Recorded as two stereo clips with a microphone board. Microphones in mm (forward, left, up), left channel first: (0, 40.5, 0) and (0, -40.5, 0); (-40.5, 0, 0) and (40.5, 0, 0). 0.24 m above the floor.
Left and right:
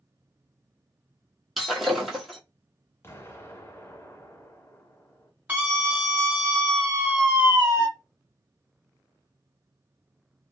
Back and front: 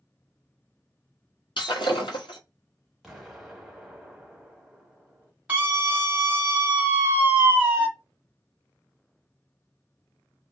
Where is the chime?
No chime in this recording.